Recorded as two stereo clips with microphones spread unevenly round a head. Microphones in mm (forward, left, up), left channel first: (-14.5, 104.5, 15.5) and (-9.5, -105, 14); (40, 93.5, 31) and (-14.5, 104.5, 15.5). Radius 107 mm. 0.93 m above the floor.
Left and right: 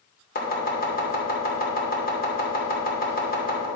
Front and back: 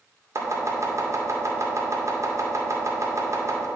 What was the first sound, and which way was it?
Chopping, 140° left.